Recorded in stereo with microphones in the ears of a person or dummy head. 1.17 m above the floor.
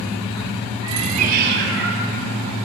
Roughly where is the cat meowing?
Centre.